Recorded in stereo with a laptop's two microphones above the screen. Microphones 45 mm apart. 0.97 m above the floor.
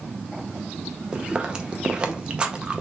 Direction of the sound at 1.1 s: 20° right (ahead or behind).